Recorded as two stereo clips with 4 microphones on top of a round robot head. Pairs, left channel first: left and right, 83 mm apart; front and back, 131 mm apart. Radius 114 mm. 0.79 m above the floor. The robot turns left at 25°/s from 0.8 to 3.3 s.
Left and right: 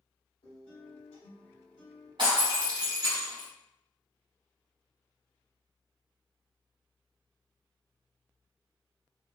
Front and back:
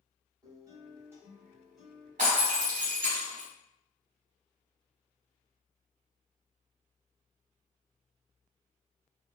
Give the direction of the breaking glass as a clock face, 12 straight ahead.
5 o'clock.